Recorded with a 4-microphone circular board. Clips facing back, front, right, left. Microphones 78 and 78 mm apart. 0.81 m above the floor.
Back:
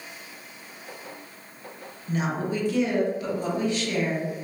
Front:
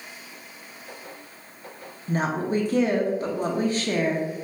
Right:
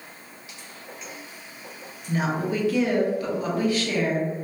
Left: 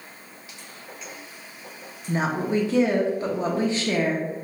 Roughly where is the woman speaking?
Ahead left.